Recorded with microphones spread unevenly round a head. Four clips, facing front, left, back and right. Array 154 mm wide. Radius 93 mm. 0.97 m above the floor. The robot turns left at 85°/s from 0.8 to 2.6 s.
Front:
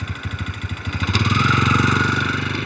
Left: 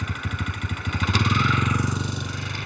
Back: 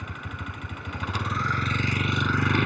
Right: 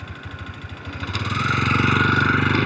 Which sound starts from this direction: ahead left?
A vehicle, at 0.0 s.